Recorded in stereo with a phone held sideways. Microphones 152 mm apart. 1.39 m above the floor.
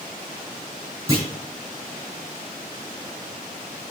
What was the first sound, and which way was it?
A clunk, 20° right (ahead or behind).